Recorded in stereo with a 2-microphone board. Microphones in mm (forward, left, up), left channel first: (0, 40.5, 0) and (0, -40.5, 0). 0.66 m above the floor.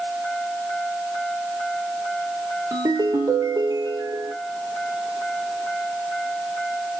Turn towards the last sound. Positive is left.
turn(degrees=-50)  # may be behind; listen again after turning